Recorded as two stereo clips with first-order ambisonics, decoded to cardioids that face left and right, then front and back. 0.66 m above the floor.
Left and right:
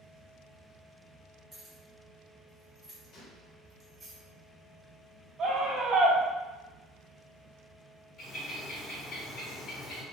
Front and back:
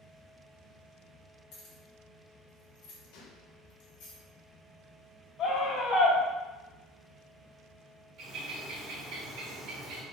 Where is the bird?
145° left, 1.9 m.